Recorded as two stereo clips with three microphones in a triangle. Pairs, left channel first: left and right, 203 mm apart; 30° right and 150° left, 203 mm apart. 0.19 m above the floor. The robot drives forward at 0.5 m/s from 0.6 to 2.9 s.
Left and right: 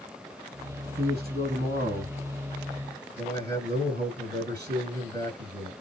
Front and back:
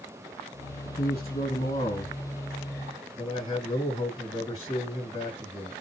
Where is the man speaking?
65° right, 2 m; by 5.7 s 95° right, 2 m.